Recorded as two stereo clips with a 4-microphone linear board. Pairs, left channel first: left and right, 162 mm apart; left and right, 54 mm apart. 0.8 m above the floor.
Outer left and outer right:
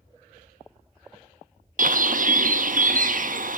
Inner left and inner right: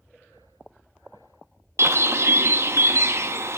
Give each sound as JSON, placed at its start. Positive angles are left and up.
{"t": 1.8, "sound": "a bird", "side_deg": -55, "distance_m": 0.6}